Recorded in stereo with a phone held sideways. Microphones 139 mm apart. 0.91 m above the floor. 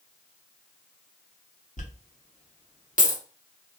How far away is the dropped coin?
About 0.7 m.